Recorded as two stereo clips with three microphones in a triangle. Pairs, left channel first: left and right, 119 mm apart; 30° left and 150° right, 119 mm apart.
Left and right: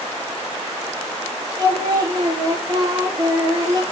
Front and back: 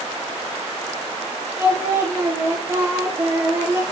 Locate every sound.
1.6 s singing: 100° right, 1.9 m